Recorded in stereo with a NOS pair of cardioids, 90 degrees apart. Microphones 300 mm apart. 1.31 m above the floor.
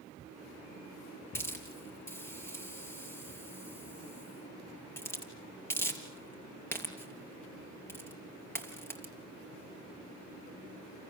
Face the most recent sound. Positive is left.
turn(degrees=10)